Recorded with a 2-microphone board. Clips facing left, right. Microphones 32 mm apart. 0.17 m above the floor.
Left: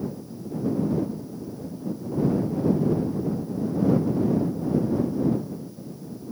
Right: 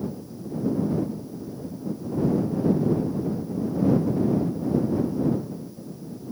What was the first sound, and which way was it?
Only background noise.